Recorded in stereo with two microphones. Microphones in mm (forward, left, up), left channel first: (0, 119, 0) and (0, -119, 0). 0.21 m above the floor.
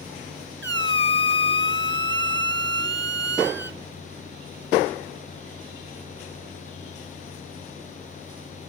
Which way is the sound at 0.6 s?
50° right (ahead or behind).